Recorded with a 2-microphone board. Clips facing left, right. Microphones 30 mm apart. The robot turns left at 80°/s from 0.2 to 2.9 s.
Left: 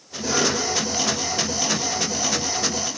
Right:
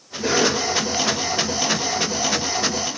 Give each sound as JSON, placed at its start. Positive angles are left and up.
{"t": 0.2, "sound": "a cough", "azimuth_deg": -40, "distance_m": 3.0}